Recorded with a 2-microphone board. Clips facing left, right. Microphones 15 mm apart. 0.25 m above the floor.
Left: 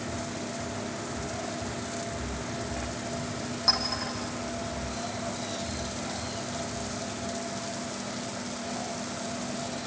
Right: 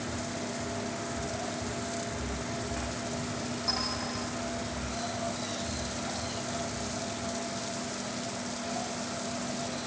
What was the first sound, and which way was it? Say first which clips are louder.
A clink: left 6 dB; 45° left (ahead or behind).